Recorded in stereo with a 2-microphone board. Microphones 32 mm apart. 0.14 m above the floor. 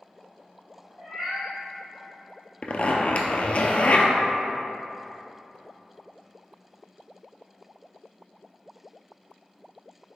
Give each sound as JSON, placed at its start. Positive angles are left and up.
{"t": 1.0, "sound": "a cat meowing", "side_deg": -10, "distance_m": 1.5}
{"t": 2.6, "sound": "a zipper", "side_deg": 45, "distance_m": 0.5}